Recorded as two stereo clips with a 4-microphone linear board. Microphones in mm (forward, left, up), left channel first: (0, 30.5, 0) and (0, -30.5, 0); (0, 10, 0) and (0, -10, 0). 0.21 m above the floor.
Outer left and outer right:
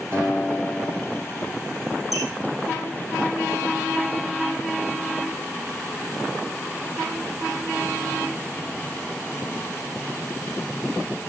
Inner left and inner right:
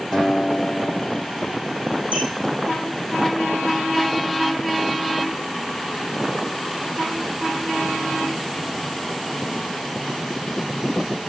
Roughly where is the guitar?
Right.